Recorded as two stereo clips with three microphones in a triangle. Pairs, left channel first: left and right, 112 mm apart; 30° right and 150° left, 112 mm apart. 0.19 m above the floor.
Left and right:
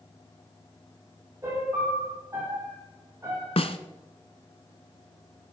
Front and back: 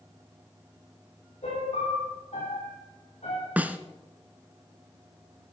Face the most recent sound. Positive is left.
turn(degrees=75)